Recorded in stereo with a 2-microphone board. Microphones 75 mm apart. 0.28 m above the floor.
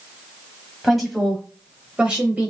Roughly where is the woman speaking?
Centre.